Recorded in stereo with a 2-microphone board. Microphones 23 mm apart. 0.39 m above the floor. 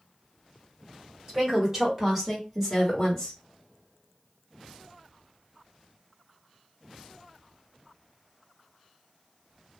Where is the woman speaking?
25° right (ahead or behind), 1.9 m; by 3.4 s 25° left (ahead or behind), 1.5 m.